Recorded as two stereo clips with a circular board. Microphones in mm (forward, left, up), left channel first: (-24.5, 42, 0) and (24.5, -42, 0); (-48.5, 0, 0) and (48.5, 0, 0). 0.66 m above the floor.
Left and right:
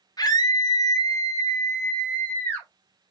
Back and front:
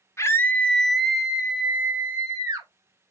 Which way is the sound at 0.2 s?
135° left.